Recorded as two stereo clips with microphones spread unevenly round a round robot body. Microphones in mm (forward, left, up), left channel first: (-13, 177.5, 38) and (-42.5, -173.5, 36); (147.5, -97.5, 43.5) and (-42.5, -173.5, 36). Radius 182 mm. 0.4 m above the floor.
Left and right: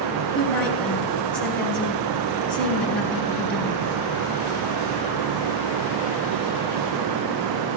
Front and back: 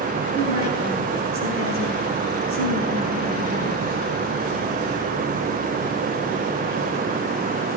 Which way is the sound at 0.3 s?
170° left.